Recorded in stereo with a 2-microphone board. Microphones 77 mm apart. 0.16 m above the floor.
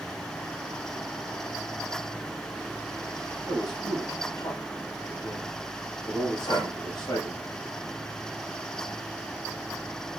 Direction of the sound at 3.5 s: 65° left (ahead or behind).